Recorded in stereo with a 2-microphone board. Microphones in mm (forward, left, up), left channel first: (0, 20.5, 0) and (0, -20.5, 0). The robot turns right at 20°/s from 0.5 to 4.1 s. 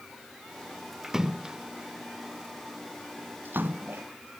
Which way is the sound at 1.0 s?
10° right (ahead or behind).